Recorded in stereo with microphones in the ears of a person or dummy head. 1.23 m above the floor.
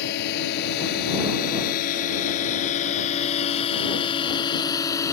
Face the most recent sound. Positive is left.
turn(degrees=15)  # may be behind; listen again after turning